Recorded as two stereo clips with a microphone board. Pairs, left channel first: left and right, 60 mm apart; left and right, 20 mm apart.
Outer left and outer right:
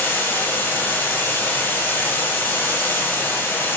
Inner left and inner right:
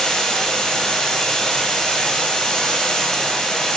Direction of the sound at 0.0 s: 40° left (ahead or behind).